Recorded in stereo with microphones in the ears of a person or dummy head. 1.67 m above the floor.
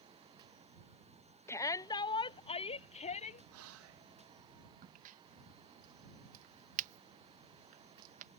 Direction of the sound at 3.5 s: 80° right.